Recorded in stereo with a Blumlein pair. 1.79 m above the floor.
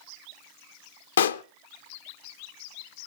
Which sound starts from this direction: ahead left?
A pop, at 1.2 s.